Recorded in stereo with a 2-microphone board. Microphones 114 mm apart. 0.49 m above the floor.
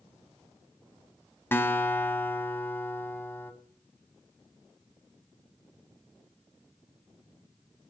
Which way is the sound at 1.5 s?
20° left (ahead or behind).